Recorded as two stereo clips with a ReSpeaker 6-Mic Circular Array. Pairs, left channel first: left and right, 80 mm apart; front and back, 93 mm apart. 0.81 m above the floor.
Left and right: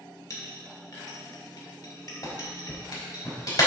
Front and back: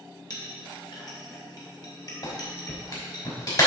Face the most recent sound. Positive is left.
turn(degrees=45)